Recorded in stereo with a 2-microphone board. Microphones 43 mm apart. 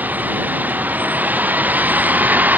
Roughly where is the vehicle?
Right.